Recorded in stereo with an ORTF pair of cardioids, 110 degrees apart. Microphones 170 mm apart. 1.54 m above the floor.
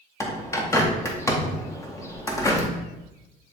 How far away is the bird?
About 1.8 m.